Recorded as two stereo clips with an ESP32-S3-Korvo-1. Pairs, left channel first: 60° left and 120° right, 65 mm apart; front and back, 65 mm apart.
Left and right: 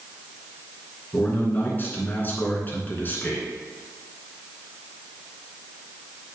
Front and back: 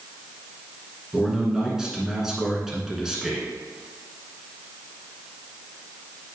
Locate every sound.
1.1 s a man speaking: 100° left, 2 m